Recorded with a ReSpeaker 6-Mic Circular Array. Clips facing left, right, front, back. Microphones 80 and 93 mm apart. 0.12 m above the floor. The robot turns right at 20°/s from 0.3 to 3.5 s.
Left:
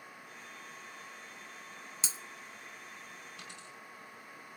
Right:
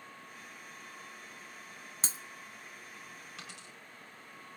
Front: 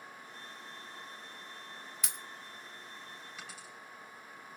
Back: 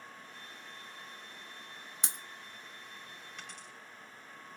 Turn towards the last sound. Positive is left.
turn(degrees=-85)